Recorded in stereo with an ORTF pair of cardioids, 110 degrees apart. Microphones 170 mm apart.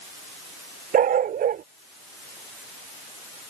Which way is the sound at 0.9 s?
55° right.